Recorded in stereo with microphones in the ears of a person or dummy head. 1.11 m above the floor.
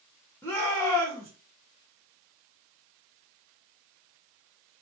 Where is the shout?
5° left (ahead or behind), 0.9 m.